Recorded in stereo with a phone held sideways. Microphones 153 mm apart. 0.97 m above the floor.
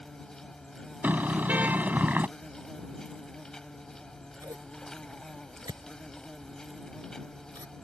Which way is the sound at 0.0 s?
5° left (ahead or behind).